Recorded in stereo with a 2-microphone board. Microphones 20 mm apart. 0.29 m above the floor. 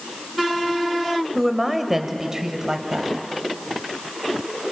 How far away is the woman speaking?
About 1.2 m.